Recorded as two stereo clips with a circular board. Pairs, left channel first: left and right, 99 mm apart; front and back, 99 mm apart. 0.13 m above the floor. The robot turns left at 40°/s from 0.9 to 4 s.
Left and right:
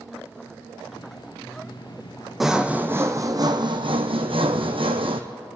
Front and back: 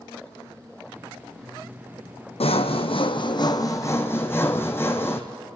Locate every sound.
2.4 s sawing: straight ahead, 1.3 m; by 5.2 s 65° right, 1.3 m